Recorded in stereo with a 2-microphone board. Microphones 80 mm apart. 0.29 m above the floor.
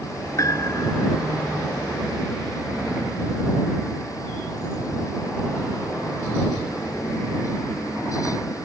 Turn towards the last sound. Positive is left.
turn(degrees=40)  # may be behind; listen again after turning